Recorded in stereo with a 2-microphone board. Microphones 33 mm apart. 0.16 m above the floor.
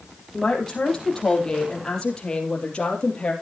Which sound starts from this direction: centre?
A woman speaking, at 0.3 s.